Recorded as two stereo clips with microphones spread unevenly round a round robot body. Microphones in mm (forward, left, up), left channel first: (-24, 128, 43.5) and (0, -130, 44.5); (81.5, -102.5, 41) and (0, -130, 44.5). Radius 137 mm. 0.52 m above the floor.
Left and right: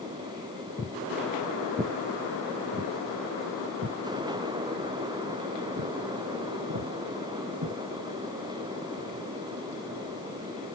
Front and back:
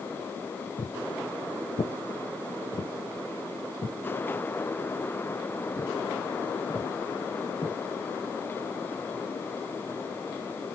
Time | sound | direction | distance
0.8 | footsteps | 25° left | 0.7 m